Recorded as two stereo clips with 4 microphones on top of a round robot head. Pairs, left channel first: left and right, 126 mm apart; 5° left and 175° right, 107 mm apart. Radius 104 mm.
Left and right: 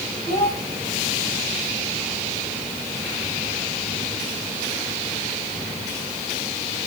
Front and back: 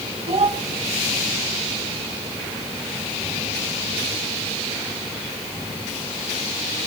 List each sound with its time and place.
0.3 s a child speaking: 145° left, 4 m